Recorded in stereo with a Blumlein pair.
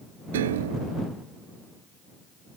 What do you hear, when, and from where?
0.3 s a piano: 60° right